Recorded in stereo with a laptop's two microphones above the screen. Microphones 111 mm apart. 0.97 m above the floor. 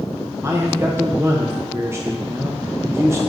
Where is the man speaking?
25° right (ahead or behind), 0.9 m.